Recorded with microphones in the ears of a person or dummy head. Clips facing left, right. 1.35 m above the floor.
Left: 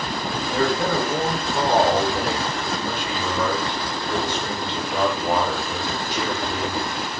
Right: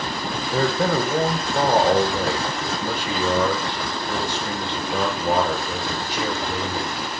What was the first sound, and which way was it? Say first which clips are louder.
A man speaking: right 1 dB; 20° right (ahead or behind).